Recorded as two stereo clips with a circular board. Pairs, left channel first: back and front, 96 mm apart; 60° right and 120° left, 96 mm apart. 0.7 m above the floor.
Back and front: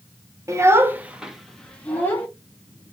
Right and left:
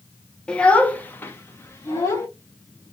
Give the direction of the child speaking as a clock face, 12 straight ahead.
12 o'clock.